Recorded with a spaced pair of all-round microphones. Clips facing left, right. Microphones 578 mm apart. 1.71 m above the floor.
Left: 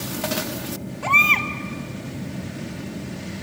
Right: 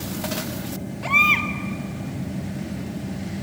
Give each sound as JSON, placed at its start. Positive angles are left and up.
{"t": 0.0, "sound": "a fan", "side_deg": -15, "distance_m": 3.0}
{"t": 1.0, "sound": "a baby crying", "side_deg": 60, "distance_m": 1.5}